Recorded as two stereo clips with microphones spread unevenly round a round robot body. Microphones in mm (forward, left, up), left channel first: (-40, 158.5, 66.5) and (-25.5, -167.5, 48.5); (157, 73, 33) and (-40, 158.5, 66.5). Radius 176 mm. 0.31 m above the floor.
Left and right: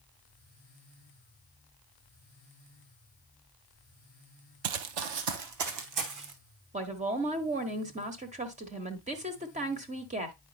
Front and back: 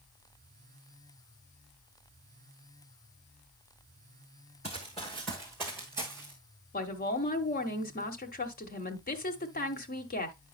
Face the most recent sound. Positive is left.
turn(degrees=-25)